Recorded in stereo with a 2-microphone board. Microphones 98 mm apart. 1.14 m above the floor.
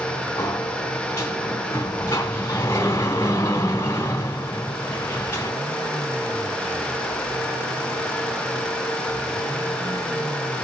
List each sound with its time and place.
0.4 s a sliding door: 30° left (ahead or behind), 1.3 m